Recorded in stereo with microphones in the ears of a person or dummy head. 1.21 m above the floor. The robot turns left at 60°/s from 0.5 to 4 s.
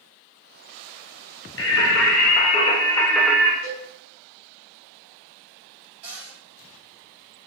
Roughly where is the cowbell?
Left.